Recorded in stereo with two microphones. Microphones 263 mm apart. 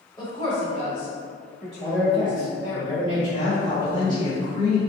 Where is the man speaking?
30° left (ahead or behind), 1.6 m.